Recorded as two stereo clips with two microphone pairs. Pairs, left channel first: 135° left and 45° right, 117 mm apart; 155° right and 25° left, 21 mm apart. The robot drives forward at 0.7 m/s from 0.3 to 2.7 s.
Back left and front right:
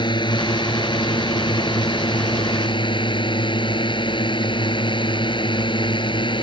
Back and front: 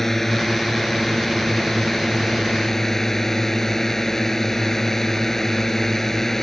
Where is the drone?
135° left; by 6.4 s 140° left.